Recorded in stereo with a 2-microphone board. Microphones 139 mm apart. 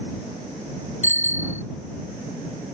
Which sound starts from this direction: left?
A bicycle bell, at 1.0 s.